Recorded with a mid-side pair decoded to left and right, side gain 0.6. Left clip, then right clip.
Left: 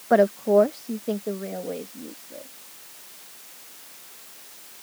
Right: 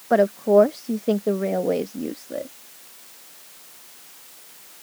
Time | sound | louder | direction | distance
0.1 | a woman speaking | right 1 dB | straight ahead | ?